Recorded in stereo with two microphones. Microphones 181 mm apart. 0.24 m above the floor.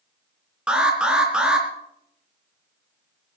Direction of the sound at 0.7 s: 5° right (ahead or behind).